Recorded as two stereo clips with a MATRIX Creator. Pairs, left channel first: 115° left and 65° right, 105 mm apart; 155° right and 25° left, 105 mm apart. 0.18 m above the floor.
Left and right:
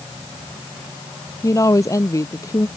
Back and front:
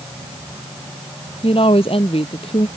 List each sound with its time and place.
1.4 s a woman speaking: 175° left